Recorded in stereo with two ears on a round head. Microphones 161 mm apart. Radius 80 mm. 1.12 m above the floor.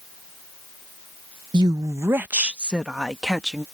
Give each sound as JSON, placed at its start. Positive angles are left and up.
{"t": 1.5, "sound": "a woman speaking", "side_deg": -25}